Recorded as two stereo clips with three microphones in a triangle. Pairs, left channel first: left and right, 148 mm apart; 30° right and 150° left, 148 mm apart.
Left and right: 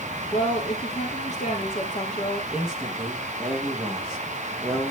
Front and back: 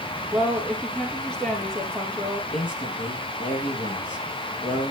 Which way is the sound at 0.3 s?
55° left.